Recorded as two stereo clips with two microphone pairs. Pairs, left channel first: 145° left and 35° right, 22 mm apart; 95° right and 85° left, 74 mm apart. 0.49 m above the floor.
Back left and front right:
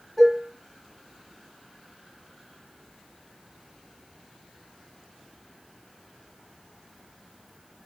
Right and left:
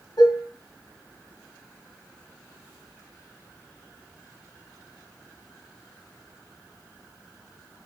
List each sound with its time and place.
0.2 s dishes clattering: 125° right, 5.5 m